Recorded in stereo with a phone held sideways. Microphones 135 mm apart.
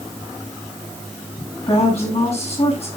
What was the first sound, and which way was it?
A woman speaking, 50° left (ahead or behind).